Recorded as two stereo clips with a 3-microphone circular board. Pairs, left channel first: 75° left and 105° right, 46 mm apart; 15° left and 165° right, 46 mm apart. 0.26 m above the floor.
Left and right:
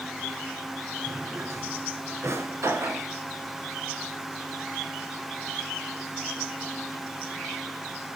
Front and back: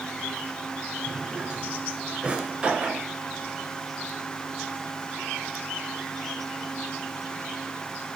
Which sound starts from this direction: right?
A drawer, at 1.1 s.